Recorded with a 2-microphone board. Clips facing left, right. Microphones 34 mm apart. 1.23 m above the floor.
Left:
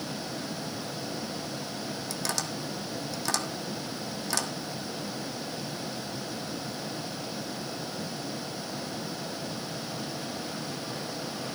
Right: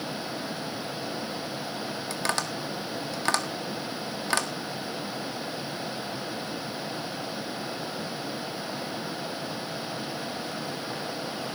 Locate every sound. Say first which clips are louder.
2.1 s tapping: right 5 dB; 45° right (ahead or behind), 1.6 m